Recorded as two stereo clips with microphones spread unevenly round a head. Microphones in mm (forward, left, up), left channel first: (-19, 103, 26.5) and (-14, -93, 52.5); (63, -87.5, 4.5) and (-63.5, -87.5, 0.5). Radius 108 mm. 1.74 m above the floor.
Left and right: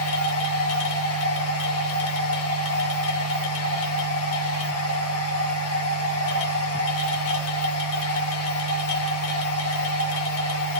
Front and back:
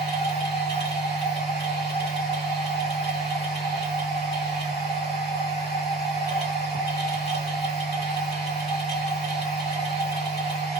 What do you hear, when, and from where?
0.0 s a machine running: 60° left, 1.1 m